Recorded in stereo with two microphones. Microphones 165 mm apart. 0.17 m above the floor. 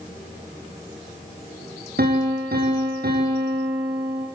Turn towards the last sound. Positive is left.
turn(degrees=-70)  # may be behind; listen again after turning